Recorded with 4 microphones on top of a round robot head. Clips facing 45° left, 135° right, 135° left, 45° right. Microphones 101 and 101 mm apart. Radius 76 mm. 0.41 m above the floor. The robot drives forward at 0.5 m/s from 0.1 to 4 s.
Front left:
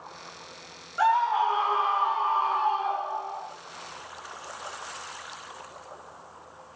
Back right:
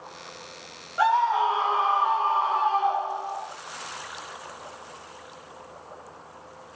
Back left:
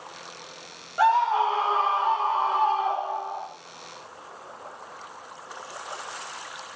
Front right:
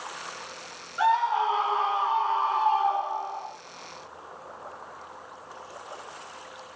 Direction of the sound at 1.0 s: 160° left.